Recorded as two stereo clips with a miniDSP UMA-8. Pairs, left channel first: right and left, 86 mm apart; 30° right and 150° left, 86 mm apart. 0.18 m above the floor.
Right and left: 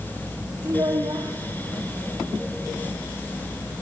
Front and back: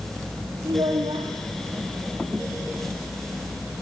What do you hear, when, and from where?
0.7 s a child speaking: 130° left, 3.5 m